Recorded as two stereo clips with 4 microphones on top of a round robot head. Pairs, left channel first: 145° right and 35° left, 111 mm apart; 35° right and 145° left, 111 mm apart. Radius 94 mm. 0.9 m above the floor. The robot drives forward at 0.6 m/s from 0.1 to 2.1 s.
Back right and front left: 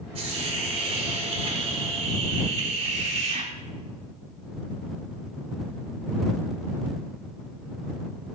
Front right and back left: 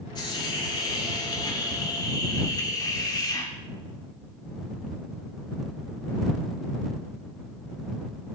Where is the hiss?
10° left, 4 m; by 3.5 s 15° left, 3 m.